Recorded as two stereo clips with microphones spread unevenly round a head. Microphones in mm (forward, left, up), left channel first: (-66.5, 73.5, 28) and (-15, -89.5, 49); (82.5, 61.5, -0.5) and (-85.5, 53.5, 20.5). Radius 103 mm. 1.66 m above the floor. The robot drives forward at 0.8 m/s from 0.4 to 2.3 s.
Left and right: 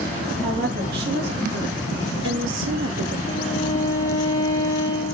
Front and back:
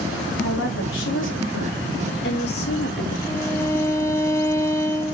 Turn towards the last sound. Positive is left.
turn(degrees=75)